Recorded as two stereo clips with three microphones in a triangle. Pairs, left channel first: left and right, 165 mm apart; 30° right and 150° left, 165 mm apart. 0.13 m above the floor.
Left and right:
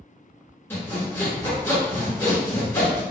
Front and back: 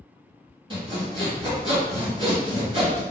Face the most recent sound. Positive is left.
turn(degrees=155)